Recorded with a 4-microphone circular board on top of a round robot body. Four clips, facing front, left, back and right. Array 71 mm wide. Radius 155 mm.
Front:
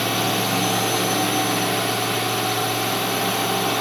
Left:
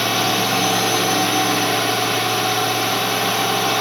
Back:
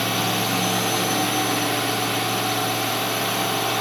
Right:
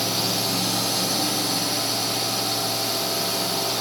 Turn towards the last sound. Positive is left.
turn(degrees=90)